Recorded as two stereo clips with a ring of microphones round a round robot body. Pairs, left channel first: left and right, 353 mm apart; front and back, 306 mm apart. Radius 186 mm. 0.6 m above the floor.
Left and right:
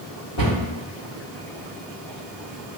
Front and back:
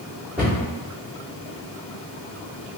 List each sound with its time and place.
0.4 s a cupboard door: 95° left, 2.0 m